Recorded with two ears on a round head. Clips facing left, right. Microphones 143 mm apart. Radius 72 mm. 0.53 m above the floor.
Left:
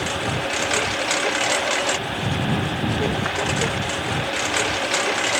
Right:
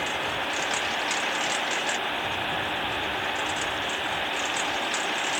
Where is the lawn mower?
70° left (ahead or behind); by 5.4 s 75° left (ahead or behind).